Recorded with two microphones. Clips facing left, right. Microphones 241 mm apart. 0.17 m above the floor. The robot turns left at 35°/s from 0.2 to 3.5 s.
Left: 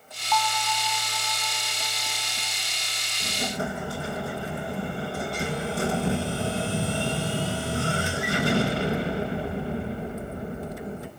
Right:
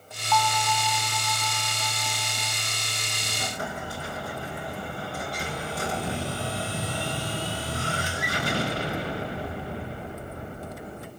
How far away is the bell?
About 1.0 m.